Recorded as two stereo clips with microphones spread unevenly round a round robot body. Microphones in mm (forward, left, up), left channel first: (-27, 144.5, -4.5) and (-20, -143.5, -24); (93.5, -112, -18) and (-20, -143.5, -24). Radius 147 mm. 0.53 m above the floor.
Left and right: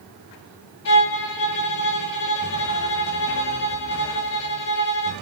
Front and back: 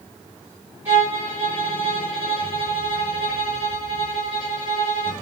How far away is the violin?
About 0.9 m.